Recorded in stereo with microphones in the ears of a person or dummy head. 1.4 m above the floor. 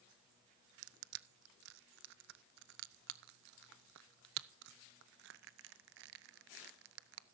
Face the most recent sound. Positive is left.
turn(degrees=-60)  # may be behind; listen again after turning